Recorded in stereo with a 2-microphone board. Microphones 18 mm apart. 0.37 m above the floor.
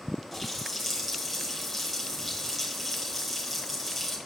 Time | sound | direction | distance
0.3 | a running tap | 5° right (ahead or behind) | 3 m